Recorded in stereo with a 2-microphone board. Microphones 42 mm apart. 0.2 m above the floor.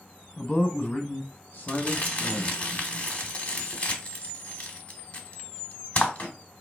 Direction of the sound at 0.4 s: 25° left (ahead or behind).